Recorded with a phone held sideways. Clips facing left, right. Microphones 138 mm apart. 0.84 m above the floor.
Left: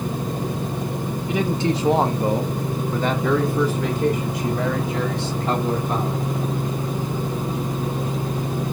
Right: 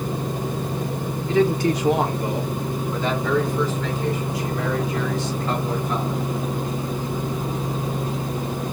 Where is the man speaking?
15° left (ahead or behind), 1.5 m; by 6.3 s 55° left (ahead or behind), 3.5 m.